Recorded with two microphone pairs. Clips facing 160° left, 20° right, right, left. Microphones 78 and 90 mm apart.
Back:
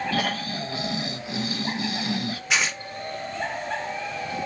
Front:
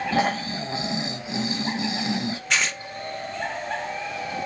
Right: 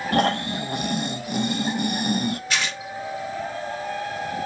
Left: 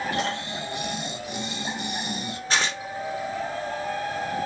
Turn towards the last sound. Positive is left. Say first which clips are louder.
# back 1 dB, left 1 dB
turn(degrees=80)